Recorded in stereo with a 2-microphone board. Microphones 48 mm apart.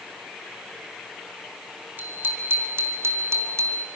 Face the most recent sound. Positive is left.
turn(degrees=-75)  # may be behind; listen again after turning